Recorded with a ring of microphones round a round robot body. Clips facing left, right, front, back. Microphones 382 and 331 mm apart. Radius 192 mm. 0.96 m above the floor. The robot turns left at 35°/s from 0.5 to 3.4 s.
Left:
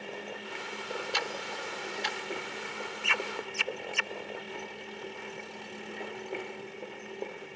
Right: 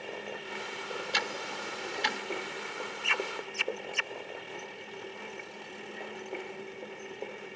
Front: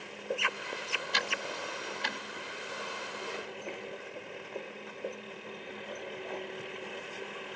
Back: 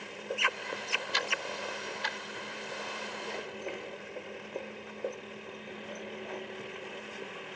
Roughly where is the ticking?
Ahead right.